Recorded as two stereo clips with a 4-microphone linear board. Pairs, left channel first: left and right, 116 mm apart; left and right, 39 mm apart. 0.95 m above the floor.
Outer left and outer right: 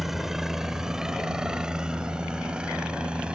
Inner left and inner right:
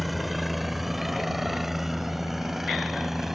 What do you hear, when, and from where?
0.0 s a helicopter: centre (ahead or behind); by 3.4 s 10° right (ahead or behind)